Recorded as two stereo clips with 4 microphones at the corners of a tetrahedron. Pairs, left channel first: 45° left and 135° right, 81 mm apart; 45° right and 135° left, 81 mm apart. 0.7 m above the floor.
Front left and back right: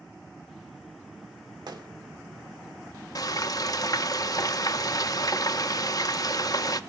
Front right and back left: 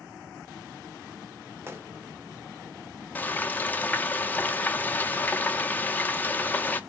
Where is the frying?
20° left, 0.6 m.